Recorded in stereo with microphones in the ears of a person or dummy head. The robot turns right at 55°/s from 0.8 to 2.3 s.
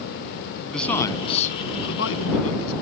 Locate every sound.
0.7 s a man speaking: straight ahead; by 2.7 s 85° left